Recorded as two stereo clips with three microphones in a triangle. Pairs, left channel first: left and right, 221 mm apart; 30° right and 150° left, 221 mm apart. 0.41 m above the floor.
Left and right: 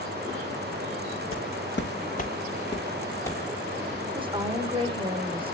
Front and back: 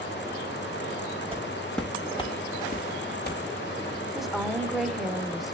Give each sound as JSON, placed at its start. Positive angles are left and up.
{"t": 1.3, "sound": "footsteps", "azimuth_deg": 90, "distance_m": 1.1}
{"t": 4.2, "sound": "a woman speaking", "azimuth_deg": -120, "distance_m": 0.9}